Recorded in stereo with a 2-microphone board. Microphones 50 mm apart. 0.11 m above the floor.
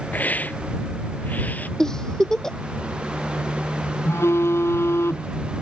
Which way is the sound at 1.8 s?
10° left (ahead or behind).